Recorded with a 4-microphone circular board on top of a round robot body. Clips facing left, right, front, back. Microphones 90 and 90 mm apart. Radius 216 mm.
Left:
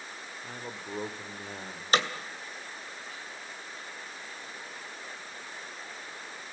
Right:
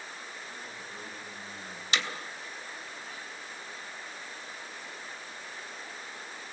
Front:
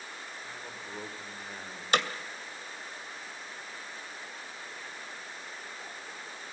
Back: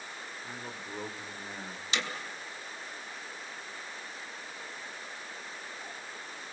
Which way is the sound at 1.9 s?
40° left.